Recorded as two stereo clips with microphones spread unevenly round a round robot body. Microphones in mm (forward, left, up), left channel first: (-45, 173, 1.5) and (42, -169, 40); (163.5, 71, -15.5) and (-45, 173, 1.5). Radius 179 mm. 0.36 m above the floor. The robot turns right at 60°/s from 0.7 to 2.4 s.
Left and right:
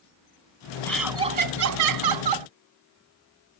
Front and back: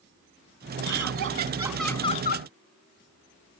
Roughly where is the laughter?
Behind.